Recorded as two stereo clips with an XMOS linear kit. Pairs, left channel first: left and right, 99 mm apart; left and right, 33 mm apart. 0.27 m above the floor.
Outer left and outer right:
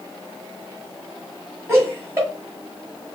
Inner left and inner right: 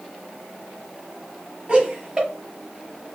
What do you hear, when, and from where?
1.7 s laughter: 30° right (ahead or behind), 2 m